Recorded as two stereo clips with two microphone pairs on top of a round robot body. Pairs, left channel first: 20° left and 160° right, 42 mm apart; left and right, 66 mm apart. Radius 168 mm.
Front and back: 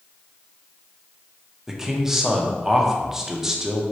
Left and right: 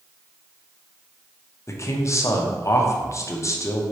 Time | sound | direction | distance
1.7 | a man speaking | 125° left | 1.0 m